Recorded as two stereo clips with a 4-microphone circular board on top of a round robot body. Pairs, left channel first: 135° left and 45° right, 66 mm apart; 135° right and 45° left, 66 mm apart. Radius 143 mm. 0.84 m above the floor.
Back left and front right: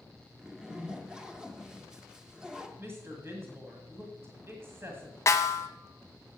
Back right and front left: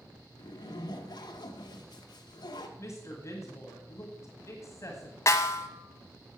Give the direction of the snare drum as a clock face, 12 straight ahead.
6 o'clock.